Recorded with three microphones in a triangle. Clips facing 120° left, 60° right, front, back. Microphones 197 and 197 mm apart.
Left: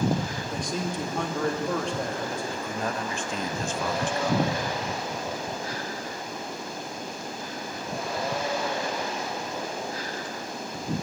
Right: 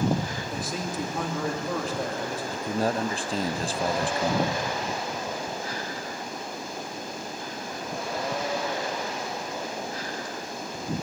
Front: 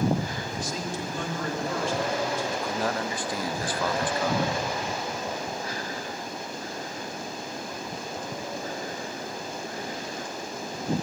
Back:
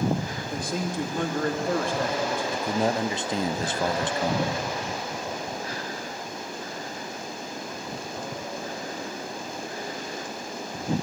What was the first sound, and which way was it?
A man speaking, 145° right.